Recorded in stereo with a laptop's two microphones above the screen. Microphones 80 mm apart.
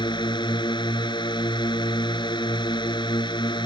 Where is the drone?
75° left (ahead or behind).